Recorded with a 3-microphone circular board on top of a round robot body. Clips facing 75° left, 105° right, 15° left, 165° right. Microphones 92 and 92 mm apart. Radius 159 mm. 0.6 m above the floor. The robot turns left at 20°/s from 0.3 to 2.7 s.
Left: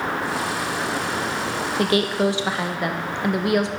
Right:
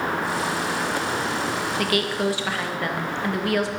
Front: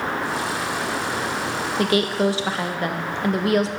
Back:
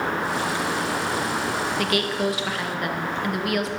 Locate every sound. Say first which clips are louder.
1.8 s a woman speaking: left 5 dB, front 7 dB; 40° left, 0.7 m; by 3.7 s 20° left, 0.7 m